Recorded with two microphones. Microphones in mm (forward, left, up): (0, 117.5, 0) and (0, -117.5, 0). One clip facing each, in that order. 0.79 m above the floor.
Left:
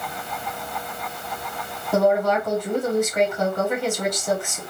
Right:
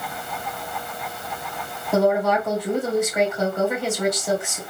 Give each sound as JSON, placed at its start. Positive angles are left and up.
{"t": 1.9, "sound": "a woman speaking", "side_deg": -5, "distance_m": 3.0}